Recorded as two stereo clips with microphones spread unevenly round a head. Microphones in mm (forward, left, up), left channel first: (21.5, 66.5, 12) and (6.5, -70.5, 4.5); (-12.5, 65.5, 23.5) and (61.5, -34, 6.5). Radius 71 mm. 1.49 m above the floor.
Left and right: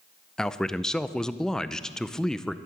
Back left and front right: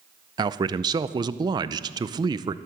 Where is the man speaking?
Straight ahead, 0.5 m.